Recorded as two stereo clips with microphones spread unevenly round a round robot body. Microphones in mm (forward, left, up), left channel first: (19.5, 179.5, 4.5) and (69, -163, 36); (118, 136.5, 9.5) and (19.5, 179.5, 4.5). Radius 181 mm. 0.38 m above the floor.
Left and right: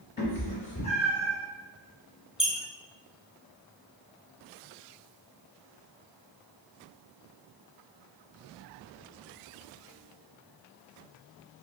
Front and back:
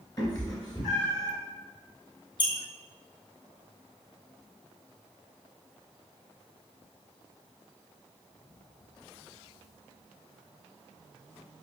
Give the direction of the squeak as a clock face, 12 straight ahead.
12 o'clock.